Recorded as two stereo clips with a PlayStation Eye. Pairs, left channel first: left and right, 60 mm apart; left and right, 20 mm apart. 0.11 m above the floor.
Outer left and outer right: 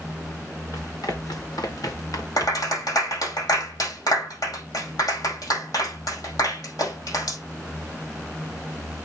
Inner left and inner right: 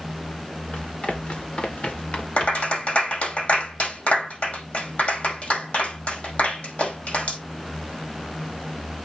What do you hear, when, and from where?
0.7 s running footsteps: 85° left, 3.5 m; by 2.8 s 60° left (ahead or behind), 1.8 m
2.4 s a clap: 75° left (ahead or behind), 5 m